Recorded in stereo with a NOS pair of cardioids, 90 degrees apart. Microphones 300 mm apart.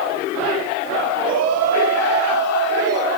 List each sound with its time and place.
1.2 s a shout: 60° right, 8.5 m; by 3.2 s 50° right, 9.5 m